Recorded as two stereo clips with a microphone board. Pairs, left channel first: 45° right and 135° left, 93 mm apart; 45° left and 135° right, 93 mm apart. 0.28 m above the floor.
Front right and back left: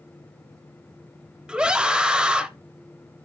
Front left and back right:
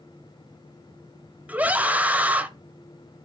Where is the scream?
165° right, 0.9 m.